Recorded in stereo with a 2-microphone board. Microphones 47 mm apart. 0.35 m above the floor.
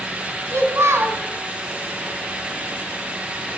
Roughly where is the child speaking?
Right.